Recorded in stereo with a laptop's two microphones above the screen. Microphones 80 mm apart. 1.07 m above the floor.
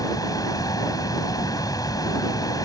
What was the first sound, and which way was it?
A fan, 55° left (ahead or behind).